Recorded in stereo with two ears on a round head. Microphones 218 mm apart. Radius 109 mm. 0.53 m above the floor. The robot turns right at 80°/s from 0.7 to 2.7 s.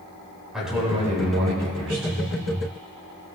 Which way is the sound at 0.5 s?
175° right.